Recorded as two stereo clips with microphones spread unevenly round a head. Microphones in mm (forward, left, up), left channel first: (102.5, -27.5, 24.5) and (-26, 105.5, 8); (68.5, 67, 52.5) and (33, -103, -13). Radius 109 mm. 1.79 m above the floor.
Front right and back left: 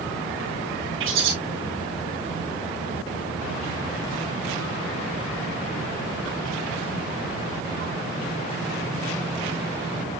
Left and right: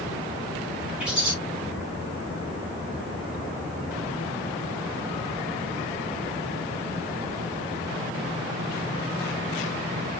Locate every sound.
1.0 s a bird: 170° left, 4 m